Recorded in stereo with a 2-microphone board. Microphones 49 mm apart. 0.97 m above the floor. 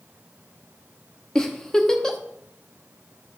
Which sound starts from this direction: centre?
A giggle, at 1.4 s.